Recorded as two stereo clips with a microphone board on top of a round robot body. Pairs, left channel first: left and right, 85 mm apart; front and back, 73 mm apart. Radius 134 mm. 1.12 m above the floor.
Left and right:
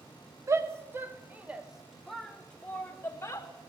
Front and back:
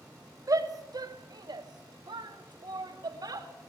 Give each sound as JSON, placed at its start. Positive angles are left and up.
{"t": 0.5, "sound": "a shout", "azimuth_deg": -145, "distance_m": 1.9}